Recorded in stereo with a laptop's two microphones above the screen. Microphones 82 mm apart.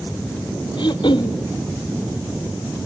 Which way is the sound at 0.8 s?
75° left (ahead or behind).